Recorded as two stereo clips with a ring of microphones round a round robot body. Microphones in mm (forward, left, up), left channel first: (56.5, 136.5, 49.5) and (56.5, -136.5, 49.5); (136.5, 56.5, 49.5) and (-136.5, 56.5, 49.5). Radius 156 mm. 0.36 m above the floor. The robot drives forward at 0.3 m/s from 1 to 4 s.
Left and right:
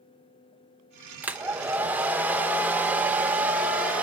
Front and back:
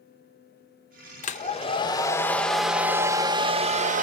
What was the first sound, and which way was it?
A hair dryer, 10° right.